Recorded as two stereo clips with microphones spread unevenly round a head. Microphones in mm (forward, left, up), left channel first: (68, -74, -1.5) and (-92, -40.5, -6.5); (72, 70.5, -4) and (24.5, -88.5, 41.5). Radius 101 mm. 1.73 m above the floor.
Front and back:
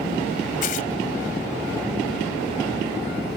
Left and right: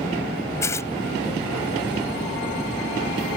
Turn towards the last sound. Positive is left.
turn(degrees=-10)